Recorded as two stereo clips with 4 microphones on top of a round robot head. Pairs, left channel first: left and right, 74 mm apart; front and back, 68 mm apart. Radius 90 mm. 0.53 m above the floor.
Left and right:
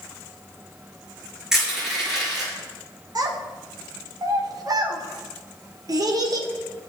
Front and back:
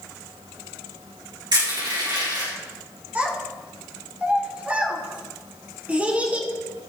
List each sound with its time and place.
1.5 s crushing: 175° right, 4.5 m
3.1 s a child speaking: 115° right, 1.5 m